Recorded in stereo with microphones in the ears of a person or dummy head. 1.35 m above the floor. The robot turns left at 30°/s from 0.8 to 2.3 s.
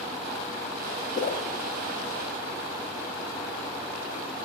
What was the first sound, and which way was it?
A whoosh, 40° left (ahead or behind).